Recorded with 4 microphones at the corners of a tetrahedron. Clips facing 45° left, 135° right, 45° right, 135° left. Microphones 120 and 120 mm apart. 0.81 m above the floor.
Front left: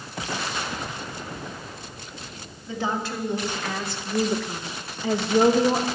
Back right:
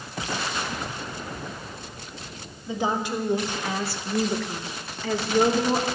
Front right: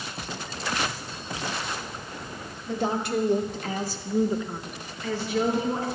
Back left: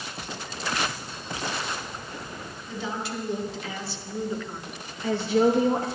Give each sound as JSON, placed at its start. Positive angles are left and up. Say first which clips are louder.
{"t": 2.7, "sound": "a woman speaking", "louder": "back right 2 dB, front right 6 dB", "azimuth_deg": -65, "distance_m": 2.0}